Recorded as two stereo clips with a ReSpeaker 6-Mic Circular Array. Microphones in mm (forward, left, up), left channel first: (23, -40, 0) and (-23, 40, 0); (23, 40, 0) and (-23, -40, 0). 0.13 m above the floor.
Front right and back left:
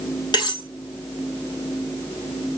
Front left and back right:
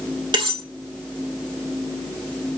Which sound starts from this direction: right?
Cutlery clinking, at 0.3 s.